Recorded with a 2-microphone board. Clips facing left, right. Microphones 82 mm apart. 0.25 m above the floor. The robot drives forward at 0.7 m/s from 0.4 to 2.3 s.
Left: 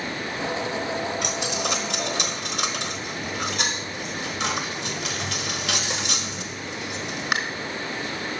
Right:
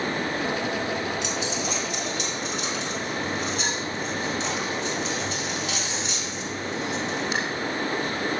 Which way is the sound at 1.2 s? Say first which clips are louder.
Left 1 dB; 60° left (ahead or behind).